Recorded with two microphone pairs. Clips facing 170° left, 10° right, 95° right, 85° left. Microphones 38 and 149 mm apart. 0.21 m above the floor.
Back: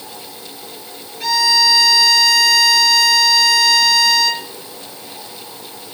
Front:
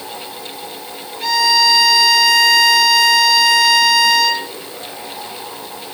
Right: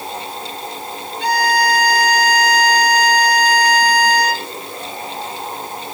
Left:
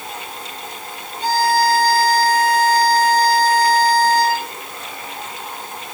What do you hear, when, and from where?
1.2 s a violin: 90° right, 3.5 m